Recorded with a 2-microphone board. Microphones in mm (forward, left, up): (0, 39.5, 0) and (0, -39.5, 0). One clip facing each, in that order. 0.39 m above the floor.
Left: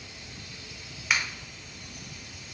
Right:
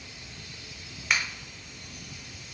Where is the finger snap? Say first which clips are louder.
Even; centre (ahead or behind), 0.8 m.